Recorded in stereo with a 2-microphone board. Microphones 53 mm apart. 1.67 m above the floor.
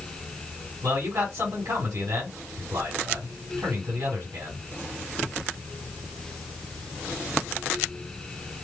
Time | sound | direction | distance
0.8 | a man speaking | 80° right | 4 m